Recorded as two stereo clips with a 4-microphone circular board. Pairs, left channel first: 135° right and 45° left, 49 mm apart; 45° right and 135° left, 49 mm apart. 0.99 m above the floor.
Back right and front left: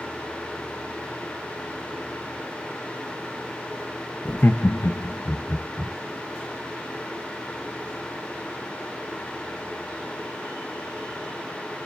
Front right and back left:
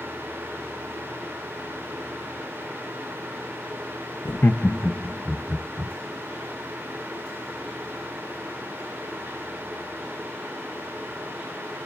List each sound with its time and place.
4.2 s laughter: 65° right, 0.7 m; by 5.9 s 165° right, 2 m